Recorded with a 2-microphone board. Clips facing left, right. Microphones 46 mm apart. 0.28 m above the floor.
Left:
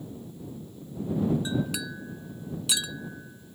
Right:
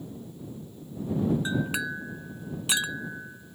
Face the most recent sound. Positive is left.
turn(degrees=-35)  # may be behind; listen again after turning